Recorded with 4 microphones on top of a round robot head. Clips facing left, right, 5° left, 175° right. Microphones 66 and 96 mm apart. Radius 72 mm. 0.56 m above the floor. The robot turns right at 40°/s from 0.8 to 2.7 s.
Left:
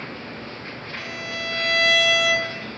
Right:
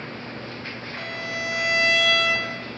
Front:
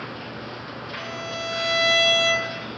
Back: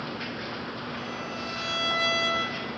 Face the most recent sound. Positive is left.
turn(degrees=30)